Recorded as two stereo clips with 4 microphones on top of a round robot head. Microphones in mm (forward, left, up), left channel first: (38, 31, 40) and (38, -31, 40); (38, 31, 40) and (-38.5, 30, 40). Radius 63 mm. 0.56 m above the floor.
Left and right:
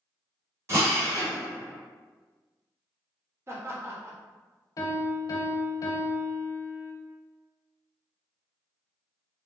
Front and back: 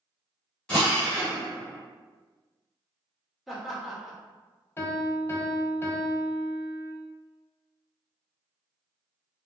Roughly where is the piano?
Ahead left.